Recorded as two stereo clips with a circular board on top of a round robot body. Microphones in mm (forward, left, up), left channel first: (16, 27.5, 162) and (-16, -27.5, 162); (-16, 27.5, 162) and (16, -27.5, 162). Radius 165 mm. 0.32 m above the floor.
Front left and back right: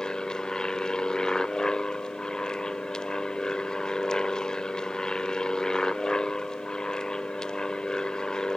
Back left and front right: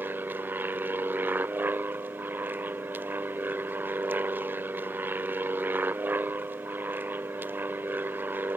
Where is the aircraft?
15° right.